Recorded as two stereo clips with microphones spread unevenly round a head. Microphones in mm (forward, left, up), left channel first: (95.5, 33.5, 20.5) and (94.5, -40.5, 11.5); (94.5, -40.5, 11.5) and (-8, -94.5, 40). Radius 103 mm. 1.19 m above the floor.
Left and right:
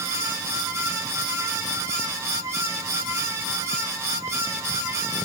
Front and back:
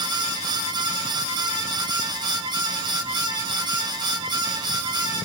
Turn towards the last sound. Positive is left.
No sound to turn to.